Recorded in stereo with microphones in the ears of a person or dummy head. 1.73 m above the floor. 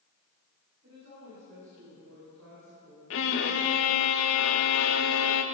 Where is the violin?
70° left (ahead or behind), 1.4 m.